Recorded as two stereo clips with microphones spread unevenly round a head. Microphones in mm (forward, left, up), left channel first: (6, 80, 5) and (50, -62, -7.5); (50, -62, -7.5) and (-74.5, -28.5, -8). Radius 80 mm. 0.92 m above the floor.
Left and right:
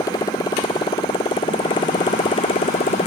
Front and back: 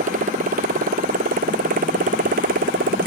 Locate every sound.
0.0 s a motorcycle: 175° left; by 3.1 s 165° left